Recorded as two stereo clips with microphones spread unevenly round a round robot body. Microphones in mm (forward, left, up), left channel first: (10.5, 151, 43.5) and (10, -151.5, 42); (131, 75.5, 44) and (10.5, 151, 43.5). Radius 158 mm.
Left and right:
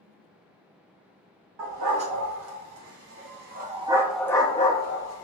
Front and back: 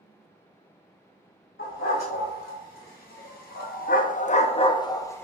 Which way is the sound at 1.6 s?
65° right.